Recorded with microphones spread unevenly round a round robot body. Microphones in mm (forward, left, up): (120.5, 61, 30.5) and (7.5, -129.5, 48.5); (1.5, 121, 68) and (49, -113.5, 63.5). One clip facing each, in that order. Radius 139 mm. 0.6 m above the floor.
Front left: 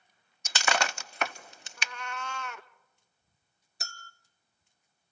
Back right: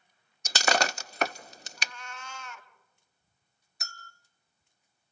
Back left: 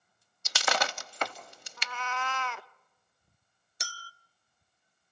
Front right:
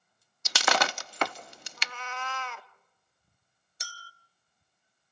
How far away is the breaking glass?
About 0.5 m.